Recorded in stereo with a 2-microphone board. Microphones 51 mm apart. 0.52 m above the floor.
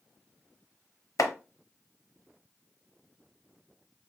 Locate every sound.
1.2 s chopping: 80° left, 0.6 m